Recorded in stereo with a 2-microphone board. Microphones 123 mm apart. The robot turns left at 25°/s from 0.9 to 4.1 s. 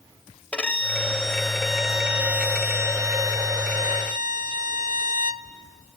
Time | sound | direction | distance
0.5 | a violin | 15° left | 0.6 m